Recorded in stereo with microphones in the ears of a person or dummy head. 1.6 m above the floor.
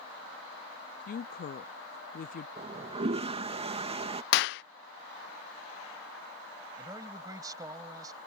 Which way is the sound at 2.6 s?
30° right (ahead or behind).